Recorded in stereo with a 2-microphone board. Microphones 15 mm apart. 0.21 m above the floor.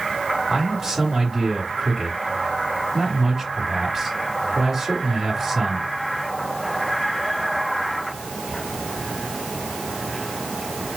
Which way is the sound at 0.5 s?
25° right (ahead or behind).